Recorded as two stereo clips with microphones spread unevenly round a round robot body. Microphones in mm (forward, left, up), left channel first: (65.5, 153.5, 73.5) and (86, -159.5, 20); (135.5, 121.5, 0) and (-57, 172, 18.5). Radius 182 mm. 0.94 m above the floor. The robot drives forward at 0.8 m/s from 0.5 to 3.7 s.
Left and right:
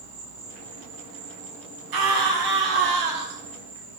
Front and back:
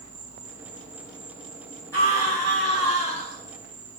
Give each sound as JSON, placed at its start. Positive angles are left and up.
{"t": 0.0, "sound": "an insect", "azimuth_deg": -85, "distance_m": 6.5}
{"t": 1.9, "sound": "a scream", "azimuth_deg": -95, "distance_m": 4.5}